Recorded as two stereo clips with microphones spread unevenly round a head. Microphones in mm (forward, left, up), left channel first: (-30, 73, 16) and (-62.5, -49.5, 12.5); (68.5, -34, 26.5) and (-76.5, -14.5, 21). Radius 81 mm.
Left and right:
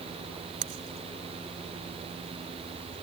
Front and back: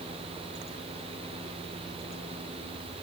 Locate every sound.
Only background noise.